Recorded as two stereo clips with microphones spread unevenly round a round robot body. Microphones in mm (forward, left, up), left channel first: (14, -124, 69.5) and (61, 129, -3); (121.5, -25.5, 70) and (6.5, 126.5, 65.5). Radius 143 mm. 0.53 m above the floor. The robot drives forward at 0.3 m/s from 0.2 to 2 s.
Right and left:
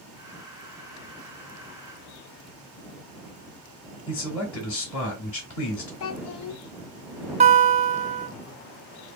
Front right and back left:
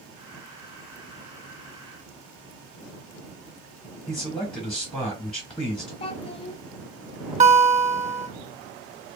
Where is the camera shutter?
I don't hear a camera shutter.